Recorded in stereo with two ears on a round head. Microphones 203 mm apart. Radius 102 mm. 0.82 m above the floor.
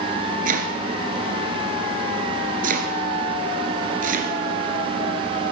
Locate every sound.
0.5 s chopping: 40° right (ahead or behind), 2 m